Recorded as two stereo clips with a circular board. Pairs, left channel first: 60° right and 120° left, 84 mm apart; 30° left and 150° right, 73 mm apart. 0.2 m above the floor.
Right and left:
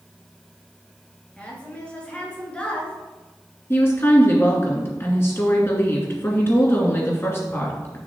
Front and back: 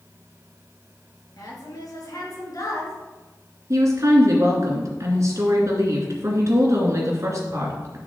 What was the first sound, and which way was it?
A woman speaking, 15° left.